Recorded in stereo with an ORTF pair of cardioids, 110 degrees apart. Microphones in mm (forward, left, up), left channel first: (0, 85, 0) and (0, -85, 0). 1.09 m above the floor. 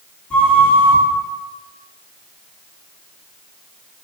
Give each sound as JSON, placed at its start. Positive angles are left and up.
{"t": 0.3, "sound": "a flute", "azimuth_deg": 5, "distance_m": 1.6}